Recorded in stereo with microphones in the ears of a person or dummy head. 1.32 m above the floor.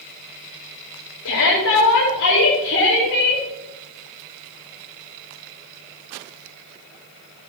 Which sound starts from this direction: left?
A shout, at 1.2 s.